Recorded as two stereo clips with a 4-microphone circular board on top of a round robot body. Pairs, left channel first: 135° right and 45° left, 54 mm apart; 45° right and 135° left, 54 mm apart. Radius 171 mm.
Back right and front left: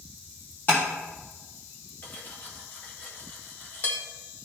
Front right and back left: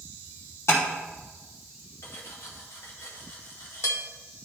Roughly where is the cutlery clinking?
Right.